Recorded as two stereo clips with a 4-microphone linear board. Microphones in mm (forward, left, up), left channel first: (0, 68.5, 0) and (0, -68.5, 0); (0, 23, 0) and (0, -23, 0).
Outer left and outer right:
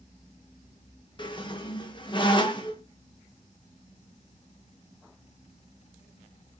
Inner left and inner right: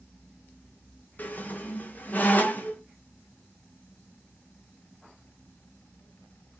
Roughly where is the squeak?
Left.